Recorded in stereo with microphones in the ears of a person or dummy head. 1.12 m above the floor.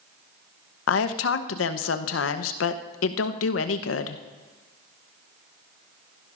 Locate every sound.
0.9 s a woman speaking: 70° left (ahead or behind), 0.9 m